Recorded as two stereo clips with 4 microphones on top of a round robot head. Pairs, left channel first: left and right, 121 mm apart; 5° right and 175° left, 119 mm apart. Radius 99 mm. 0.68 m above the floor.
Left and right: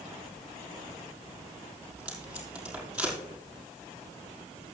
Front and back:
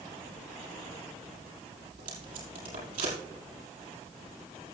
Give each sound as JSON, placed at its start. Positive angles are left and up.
{"t": 1.9, "sound": "tape being pulled", "azimuth_deg": -170, "distance_m": 5.5}